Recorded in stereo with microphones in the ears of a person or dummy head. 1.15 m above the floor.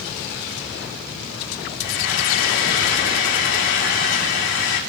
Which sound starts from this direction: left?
Frying, at 1.8 s.